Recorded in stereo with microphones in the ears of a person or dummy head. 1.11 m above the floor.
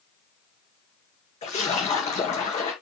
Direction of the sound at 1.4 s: 30° left (ahead or behind).